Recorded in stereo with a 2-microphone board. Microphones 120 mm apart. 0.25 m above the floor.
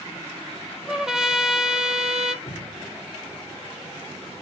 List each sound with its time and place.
0.9 s a trumpet: 5° right (ahead or behind), 1.3 m
2.5 s dripping: 70° left (ahead or behind), 1.7 m